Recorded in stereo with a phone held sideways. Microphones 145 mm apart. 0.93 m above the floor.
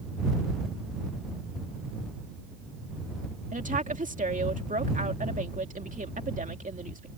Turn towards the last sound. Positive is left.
turn(degrees=-65)  # may be behind; listen again after turning